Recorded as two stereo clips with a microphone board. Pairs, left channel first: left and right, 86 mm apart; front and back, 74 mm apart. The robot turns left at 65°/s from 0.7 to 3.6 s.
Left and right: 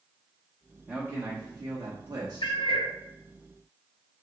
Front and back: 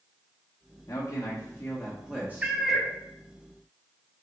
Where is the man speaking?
30° right, 0.8 m; by 2.6 s 140° right, 0.8 m.